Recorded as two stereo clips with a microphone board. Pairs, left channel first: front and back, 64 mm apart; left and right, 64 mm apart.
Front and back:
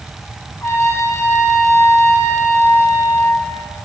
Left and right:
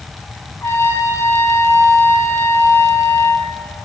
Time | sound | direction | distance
0.6 | a trumpet | 40° left | 0.9 m